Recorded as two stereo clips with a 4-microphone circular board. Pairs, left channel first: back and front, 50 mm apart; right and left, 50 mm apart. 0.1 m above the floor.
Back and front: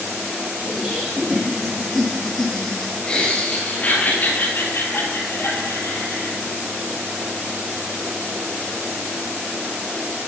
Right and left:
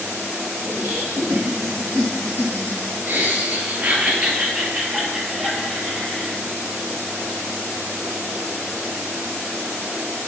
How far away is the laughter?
About 3 m.